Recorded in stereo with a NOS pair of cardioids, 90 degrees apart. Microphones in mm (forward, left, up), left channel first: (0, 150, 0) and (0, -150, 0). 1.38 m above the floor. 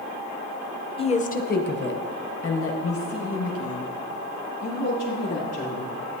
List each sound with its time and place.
1.0 s a woman speaking: 15° left, 0.6 m; by 6.0 s 50° left, 3 m